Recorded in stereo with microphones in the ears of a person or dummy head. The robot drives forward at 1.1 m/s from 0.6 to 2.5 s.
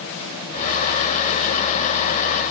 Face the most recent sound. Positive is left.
No sound to turn to.